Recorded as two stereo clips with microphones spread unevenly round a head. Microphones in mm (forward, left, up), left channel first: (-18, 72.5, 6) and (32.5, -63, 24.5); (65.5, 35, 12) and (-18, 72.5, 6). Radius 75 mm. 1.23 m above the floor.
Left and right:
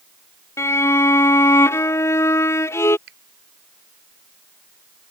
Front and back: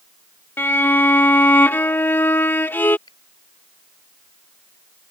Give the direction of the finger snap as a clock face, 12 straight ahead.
3 o'clock.